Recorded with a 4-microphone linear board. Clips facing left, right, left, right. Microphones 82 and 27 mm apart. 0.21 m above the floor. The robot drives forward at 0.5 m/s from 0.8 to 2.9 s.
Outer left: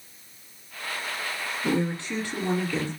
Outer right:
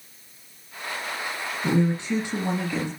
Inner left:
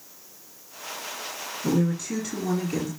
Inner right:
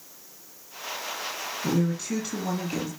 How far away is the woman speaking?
About 1.4 m.